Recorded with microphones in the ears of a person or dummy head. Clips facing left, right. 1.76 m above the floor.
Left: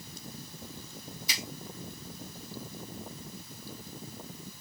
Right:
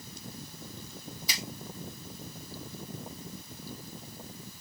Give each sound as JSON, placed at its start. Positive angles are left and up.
{"t": 1.3, "sound": "a finger snap", "side_deg": -60, "distance_m": 3.5}